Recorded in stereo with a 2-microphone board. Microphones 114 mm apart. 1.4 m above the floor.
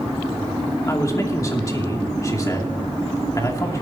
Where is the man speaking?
30° left (ahead or behind), 2.5 m.